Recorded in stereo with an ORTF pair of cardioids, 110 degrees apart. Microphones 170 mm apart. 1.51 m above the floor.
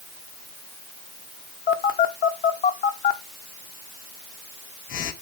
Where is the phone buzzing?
55° left, 1.2 m.